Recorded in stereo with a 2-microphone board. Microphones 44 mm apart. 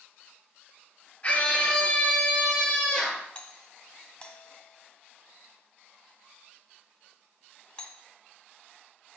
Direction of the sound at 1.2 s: 30° left (ahead or behind).